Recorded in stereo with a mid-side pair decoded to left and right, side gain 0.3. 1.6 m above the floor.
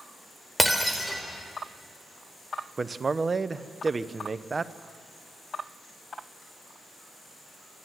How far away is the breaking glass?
About 3.5 m.